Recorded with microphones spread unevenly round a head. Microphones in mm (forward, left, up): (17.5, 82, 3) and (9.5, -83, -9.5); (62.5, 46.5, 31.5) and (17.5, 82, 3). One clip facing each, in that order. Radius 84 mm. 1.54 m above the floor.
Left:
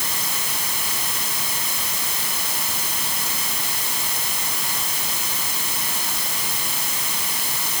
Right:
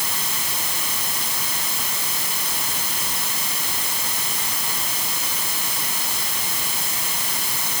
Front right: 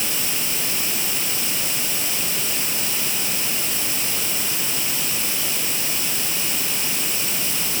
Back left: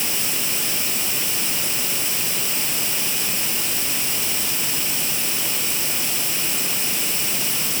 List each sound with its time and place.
Only background noise.